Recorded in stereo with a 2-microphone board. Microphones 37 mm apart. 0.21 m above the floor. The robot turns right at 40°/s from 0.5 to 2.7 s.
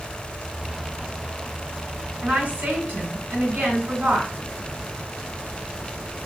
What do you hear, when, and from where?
2.2 s a woman speaking: 50° right (ahead or behind), 2.0 m; by 4.3 s 45° right (ahead or behind), 2.0 m